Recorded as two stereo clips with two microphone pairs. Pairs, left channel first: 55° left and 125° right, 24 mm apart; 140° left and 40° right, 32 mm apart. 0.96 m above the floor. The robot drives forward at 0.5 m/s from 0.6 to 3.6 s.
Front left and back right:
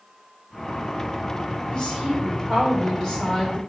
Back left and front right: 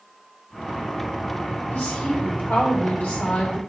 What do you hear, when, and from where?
1.7 s a woman speaking: 110° left, 3.5 m; by 3.6 s 125° left, 4 m